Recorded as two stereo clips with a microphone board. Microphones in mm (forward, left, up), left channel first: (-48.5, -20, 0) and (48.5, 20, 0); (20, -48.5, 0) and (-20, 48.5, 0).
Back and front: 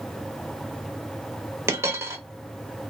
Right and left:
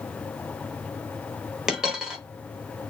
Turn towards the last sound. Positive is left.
turn(degrees=35)